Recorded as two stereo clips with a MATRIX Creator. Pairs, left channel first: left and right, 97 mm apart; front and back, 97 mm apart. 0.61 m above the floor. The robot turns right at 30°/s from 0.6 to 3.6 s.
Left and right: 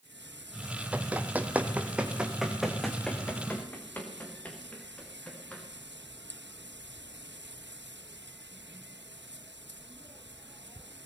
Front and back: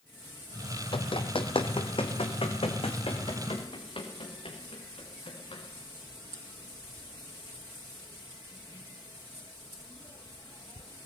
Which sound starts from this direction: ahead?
Running footsteps, at 0.9 s.